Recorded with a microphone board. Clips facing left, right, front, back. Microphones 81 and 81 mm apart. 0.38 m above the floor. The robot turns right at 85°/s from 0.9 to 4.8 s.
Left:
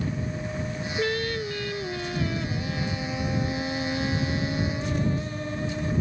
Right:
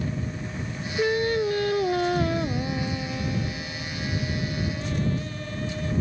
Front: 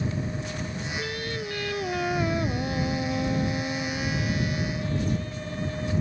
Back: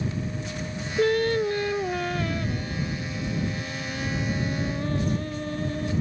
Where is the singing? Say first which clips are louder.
Right 5 dB, back 15 dB; 170° right; by 6.0 s 150° left.